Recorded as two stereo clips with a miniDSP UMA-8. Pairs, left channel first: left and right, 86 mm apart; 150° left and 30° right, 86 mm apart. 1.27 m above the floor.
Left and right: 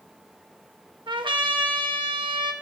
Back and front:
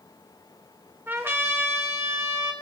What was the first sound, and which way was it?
A trumpet, 90° right.